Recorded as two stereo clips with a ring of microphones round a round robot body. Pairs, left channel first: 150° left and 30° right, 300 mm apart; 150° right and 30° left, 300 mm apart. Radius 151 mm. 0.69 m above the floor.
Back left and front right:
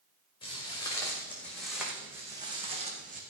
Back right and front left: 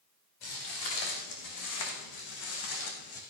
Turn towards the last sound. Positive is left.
turn(degrees=-95)